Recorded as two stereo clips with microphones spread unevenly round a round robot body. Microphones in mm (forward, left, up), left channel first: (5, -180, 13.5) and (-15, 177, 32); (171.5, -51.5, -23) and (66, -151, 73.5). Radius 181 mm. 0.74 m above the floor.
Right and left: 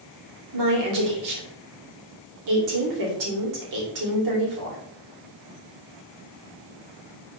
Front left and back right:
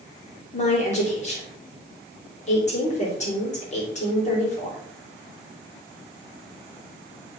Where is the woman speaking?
55° left, 3 m.